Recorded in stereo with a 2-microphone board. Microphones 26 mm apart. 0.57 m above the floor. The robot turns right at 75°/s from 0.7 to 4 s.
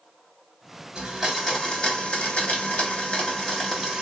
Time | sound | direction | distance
0.9 | a blender | 35° right | 1.9 m